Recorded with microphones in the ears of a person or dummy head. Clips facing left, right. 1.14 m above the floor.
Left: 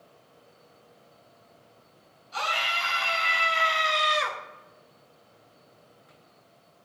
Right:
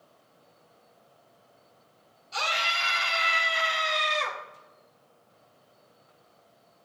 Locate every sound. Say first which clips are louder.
2.3 s a scream: left 1 dB; 35° right (ahead or behind), 3.5 m; by 4.4 s 15° left (ahead or behind), 1.7 m